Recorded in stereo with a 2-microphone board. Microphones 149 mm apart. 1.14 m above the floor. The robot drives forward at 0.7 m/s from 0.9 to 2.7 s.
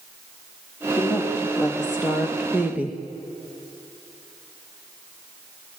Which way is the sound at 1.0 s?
5° right (ahead or behind).